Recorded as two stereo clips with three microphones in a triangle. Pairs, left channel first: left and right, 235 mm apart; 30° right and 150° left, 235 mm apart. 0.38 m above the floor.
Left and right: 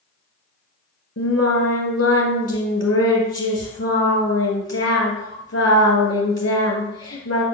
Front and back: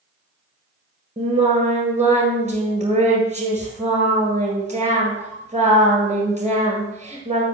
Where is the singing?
90° left, 1.9 m.